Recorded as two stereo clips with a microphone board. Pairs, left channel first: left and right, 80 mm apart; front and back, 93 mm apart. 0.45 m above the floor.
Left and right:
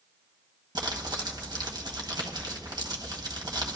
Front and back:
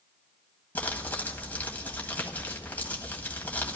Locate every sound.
0.8 s crumpling: 70° right, 1.5 m